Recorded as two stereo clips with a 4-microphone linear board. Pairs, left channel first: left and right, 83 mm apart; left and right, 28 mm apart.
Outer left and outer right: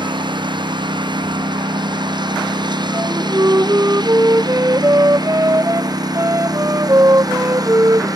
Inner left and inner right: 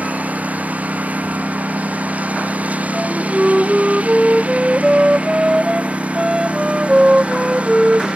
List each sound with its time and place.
0.0 s a lawn mower: 70° right (ahead or behind); by 8.2 s 50° right (ahead or behind)
2.9 s a flute: 40° right (ahead or behind)